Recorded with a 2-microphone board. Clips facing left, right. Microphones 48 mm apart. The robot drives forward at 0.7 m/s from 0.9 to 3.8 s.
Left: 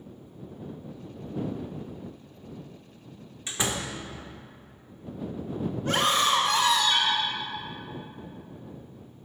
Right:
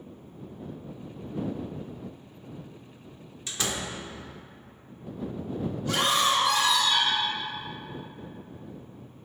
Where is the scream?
45° left (ahead or behind), 2 m.